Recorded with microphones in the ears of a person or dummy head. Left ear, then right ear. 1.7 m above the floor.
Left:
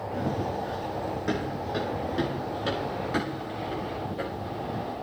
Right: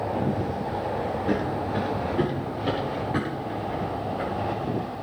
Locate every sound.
0.1 s running footsteps: 70° left (ahead or behind), 5 m; by 5.0 s 40° left (ahead or behind), 7 m